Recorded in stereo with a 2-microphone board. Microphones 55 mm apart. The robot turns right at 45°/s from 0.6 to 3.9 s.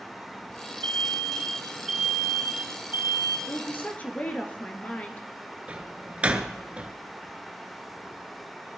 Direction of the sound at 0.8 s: 125° left.